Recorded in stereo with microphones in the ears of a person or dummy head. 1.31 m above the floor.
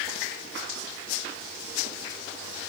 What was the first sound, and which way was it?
Only background noise.